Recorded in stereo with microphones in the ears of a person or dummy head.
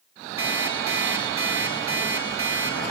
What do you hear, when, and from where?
0.4 s an alarm clock: 15° right (ahead or behind), 4.5 m